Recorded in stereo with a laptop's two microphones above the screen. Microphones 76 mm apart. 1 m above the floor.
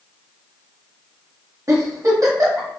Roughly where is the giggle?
Right.